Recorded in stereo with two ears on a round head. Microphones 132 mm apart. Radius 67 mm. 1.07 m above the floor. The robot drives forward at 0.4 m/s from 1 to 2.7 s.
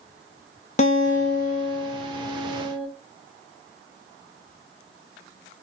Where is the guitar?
50° left (ahead or behind), 1.1 m; by 2.9 s 35° left (ahead or behind), 1.4 m.